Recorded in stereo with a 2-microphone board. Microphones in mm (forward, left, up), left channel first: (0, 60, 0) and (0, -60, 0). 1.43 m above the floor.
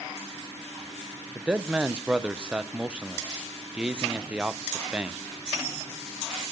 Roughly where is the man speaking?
Centre.